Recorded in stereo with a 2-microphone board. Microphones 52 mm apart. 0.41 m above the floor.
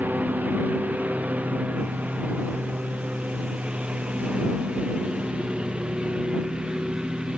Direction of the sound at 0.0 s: 30° right (ahead or behind).